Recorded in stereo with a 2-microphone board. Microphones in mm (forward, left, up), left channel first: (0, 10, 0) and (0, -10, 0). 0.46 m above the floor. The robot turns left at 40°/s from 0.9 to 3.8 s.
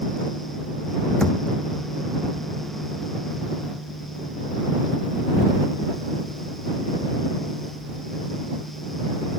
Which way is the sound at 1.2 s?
35° left (ahead or behind).